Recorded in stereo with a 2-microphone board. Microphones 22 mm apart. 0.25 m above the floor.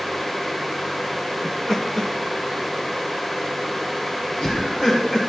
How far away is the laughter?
About 1.8 m.